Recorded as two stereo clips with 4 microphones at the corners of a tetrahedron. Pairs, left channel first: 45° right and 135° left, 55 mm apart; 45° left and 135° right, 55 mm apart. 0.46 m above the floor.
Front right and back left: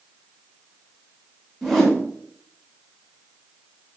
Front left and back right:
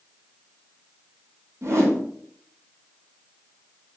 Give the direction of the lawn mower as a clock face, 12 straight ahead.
No lawn mower in this recording.